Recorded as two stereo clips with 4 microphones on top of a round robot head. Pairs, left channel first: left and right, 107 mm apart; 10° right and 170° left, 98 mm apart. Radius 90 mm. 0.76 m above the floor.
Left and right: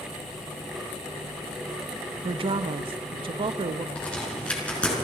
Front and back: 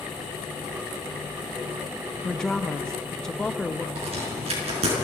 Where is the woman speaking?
90° right, 0.6 m.